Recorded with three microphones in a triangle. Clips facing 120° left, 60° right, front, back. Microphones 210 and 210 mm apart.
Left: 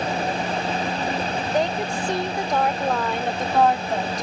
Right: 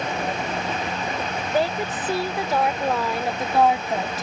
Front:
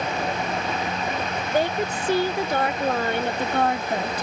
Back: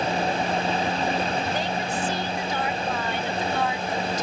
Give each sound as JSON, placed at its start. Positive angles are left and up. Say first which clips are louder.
{"t": 1.5, "sound": "a woman speaking", "louder": "right 1 dB, front 4 dB", "azimuth_deg": 25}